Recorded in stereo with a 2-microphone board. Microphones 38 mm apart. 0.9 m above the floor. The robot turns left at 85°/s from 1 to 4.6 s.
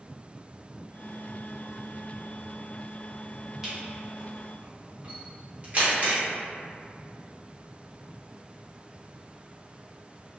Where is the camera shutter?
10° right (ahead or behind), 1.1 m; by 6.2 s 35° right (ahead or behind), 1.1 m.